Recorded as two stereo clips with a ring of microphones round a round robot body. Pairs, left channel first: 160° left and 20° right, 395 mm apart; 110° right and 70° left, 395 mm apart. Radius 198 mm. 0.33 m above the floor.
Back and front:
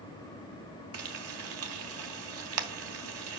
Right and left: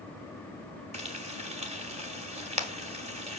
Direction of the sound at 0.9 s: Straight ahead.